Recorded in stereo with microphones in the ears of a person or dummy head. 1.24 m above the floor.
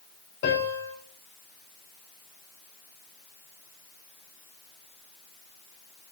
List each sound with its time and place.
0.4 s a piano: 55° left (ahead or behind), 5 m